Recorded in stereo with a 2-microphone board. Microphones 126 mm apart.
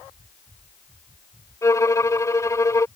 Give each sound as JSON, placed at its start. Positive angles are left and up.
{"t": 1.6, "sound": "a violin", "side_deg": 25}